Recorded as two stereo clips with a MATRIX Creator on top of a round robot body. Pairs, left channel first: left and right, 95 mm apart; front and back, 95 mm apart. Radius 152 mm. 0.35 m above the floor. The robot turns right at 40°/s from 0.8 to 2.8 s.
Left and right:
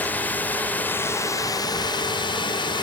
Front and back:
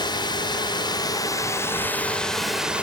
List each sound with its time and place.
0.0 s a drone: 25° left; by 2.8 s 105° left